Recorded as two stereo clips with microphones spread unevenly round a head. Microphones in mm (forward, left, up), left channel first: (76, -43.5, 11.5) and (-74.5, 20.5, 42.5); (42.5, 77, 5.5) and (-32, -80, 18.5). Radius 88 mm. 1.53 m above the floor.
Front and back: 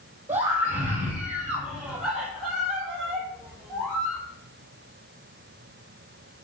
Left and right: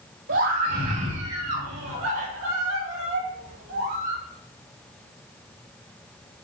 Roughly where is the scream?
Behind right.